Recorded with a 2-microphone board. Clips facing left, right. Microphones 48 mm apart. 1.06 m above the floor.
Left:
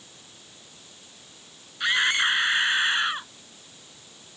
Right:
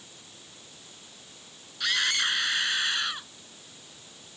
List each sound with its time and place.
1.8 s a scream: 25° left (ahead or behind)